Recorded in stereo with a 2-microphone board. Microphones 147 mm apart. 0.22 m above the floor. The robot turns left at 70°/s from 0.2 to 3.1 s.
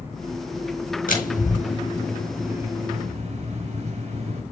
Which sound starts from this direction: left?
A door slam, at 1.1 s.